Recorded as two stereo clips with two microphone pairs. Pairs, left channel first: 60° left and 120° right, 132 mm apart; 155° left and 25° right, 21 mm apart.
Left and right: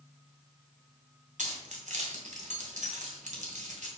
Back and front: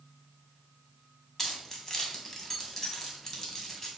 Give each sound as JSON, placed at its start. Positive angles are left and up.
{"t": 1.4, "sound": "keys jangling", "azimuth_deg": -140, "distance_m": 2.5}